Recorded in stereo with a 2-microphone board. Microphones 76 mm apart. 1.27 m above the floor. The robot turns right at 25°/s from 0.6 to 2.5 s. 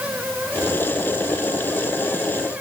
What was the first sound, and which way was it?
Only background noise.